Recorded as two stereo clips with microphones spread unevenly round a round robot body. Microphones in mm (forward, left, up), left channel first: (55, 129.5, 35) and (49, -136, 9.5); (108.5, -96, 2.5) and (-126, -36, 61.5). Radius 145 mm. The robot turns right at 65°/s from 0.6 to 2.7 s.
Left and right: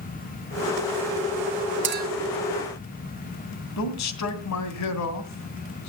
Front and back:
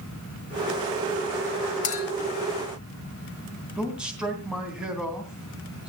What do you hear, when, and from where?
1.8 s a clink: 50° right, 2.5 m; by 2.1 s 35° right, 2.5 m
3.8 s a man speaking: 75° left, 2.5 m